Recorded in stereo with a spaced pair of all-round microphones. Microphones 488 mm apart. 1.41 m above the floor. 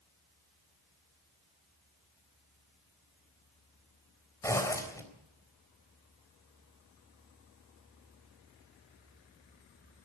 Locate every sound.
4.4 s a zipper: 5° left (ahead or behind), 3.5 m